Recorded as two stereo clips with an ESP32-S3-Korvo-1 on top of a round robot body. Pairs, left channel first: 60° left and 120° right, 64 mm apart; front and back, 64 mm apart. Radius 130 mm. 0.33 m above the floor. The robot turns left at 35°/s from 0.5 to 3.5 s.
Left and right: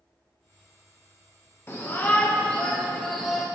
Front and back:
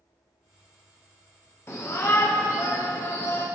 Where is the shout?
25° left, 1.8 m; by 3.5 s 35° right, 1.8 m.